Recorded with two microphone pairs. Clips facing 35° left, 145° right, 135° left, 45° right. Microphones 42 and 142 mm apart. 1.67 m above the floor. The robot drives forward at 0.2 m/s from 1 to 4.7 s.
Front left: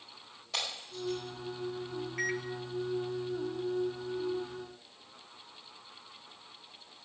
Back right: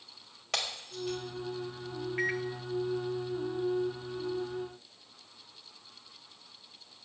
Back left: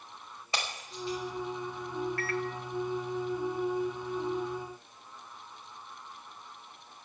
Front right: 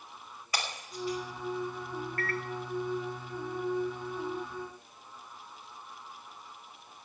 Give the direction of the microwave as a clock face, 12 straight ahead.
3 o'clock.